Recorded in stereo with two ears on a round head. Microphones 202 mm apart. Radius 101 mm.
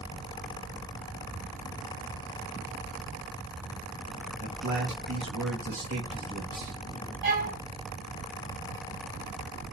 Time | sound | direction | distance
4.4 | a man speaking | 55° right (ahead or behind) | 1.2 m
7.2 | a violin | 45° right (ahead or behind) | 2 m